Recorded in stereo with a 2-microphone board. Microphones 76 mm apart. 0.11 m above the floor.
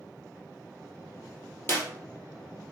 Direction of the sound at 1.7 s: 35° left (ahead or behind).